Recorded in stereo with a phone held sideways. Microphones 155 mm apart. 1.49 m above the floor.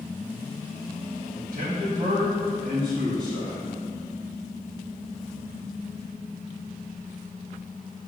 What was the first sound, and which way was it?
A man speaking, 60° right (ahead or behind).